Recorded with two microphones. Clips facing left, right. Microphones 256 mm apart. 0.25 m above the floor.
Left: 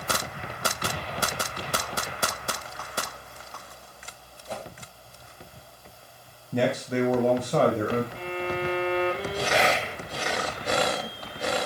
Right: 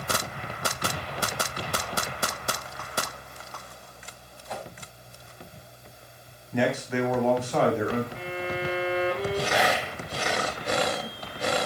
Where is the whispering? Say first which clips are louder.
Left 1 dB; 25° left (ahead or behind), 1.4 m.